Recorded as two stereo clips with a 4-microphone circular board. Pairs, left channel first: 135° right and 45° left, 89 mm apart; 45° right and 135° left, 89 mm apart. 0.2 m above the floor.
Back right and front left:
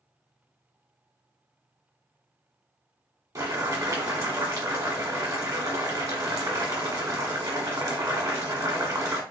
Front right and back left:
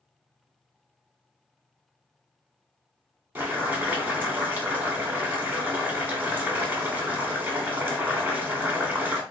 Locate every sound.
3.4 s boiling: 75° left, 1.3 m